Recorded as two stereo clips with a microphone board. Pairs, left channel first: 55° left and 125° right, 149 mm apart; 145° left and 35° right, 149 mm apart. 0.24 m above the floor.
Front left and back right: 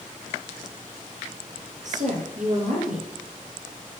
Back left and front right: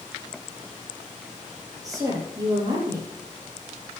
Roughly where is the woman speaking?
Right.